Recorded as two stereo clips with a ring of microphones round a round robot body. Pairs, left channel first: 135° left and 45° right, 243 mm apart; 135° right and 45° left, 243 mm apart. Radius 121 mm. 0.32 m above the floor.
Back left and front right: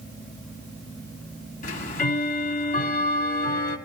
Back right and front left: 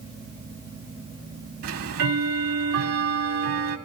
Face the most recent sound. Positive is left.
turn(degrees=80)